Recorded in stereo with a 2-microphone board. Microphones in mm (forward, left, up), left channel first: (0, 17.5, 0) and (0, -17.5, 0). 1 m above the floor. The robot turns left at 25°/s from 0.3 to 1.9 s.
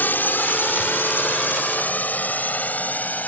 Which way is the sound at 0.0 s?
65° left (ahead or behind).